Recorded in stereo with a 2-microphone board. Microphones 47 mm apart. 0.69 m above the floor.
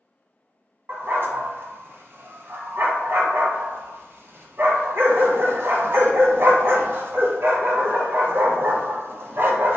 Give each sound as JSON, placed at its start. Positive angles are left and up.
{"t": 0.9, "sound": "a dog barking", "side_deg": -55, "distance_m": 1.0}